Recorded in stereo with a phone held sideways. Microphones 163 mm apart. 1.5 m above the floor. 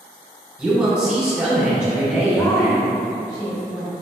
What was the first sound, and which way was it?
A man speaking, 5° right (ahead or behind).